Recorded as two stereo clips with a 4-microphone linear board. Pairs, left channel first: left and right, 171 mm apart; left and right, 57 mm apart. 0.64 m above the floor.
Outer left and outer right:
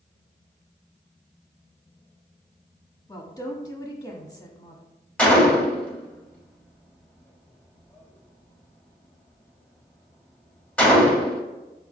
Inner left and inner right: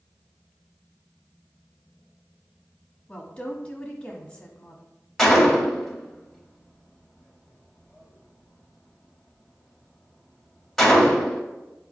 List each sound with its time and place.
3.1 s a woman speaking: 25° left (ahead or behind), 1.0 m
5.2 s a gunshot: 10° left (ahead or behind), 0.8 m